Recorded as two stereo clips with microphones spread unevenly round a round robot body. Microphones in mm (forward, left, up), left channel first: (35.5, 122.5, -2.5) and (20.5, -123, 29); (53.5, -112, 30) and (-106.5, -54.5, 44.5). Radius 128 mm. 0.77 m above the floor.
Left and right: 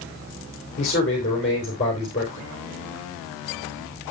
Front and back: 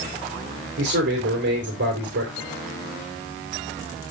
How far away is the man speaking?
About 3 m.